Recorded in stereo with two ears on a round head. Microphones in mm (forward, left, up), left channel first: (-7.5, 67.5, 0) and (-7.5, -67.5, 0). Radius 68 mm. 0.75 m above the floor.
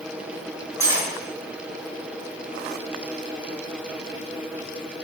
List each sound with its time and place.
0.8 s cutlery clinking: 20° right (ahead or behind), 2 m